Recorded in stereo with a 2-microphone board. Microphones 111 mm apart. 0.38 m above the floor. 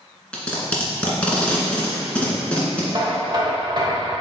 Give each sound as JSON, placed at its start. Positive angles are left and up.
{"t": 0.3, "sound": "tape being pulled", "side_deg": 10, "distance_m": 1.7}
{"t": 2.9, "sound": "knocking", "side_deg": -45, "distance_m": 1.4}